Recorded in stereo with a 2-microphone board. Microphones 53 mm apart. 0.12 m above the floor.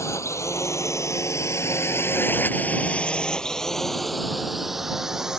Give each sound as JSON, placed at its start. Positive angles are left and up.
{"t": 0.0, "sound": "a drone", "side_deg": 60}